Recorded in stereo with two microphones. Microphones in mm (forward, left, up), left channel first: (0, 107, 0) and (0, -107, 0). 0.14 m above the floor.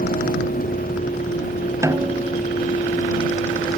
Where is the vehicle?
45° left (ahead or behind); by 3.8 s 35° left (ahead or behind).